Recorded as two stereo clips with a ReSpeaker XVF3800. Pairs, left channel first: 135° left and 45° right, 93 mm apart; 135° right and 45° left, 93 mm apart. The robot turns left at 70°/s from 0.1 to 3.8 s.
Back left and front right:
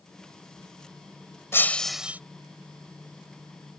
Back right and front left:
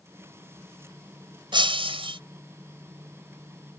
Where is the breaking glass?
75° left; by 2.2 s 25° left.